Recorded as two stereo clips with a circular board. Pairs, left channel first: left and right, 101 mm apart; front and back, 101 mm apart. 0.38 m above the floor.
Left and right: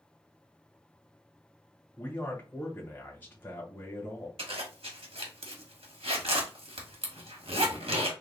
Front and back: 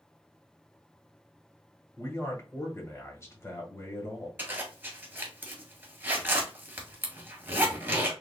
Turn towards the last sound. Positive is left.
turn(degrees=-110)